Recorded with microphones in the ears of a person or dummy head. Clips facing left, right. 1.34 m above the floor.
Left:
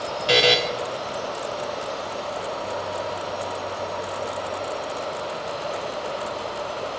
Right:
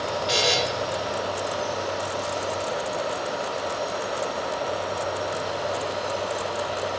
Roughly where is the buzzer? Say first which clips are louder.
Left 7 dB; left.